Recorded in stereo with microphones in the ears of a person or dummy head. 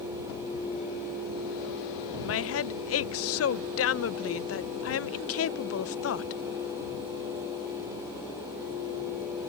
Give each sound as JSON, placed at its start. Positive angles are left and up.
{"t": 2.2, "sound": "a woman speaking", "side_deg": 70}